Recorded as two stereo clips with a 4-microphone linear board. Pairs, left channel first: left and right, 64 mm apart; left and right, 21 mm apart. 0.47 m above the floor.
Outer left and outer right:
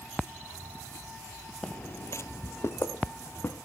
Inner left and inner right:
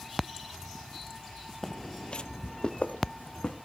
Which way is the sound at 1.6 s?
15° left (ahead or behind).